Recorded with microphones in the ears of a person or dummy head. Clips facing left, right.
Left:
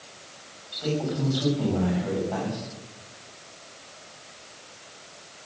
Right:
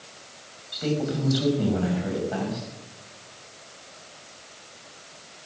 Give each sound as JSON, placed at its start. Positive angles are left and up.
{"t": 0.7, "sound": "a man speaking", "side_deg": -30, "distance_m": 7.0}